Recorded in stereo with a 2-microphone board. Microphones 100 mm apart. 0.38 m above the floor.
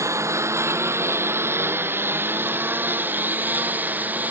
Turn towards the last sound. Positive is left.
turn(degrees=-15)  # may be behind; listen again after turning